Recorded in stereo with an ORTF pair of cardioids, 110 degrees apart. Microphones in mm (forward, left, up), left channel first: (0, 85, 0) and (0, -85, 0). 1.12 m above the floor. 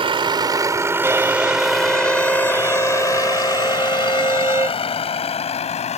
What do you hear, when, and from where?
0.0 s a vehicle: 30° right; by 6.0 s 40° left
1.0 s a violin: 15° right